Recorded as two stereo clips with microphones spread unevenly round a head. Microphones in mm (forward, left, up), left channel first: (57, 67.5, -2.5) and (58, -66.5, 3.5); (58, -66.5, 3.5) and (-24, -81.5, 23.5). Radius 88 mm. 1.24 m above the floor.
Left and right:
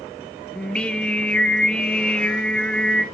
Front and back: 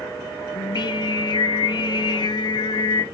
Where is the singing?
10° left, 1.0 m.